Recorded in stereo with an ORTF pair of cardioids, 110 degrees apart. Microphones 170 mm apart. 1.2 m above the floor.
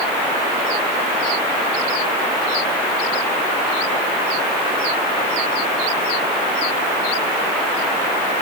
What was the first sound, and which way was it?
Only background noise.